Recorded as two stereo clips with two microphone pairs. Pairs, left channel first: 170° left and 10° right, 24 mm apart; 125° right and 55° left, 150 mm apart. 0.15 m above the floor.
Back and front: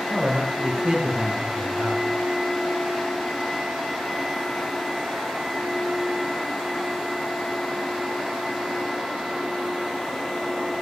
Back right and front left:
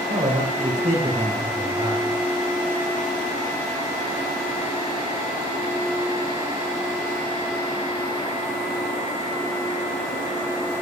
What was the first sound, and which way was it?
A man speaking, 20° left.